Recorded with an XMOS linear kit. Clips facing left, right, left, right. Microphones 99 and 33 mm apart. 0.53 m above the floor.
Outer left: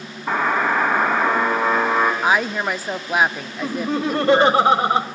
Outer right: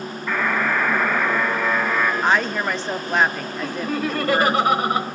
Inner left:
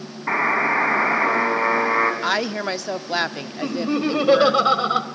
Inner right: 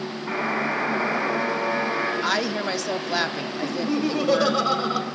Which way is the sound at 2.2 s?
10° left (ahead or behind).